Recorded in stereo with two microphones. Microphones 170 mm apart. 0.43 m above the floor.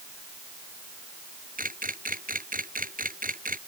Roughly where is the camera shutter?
Right.